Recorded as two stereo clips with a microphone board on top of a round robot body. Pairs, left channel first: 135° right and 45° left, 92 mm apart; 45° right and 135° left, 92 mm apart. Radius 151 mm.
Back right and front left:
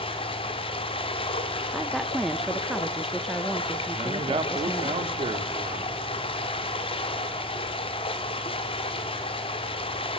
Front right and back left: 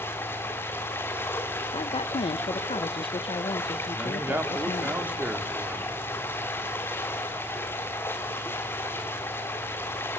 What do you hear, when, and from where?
0.0 s running water: 110° right, 1.4 m
1.7 s a woman speaking: 45° right, 0.6 m
3.9 s a man speaking: 65° left, 2.0 m